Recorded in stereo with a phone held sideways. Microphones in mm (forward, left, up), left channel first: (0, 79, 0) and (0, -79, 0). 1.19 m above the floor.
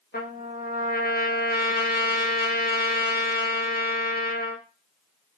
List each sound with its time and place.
0.1 s a trumpet: 80° left, 0.9 m